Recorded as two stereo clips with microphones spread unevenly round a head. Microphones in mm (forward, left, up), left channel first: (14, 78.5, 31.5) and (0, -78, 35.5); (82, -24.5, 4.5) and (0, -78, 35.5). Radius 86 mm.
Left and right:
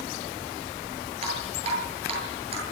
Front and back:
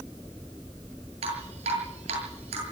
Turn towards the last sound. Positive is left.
turn(degrees=-150)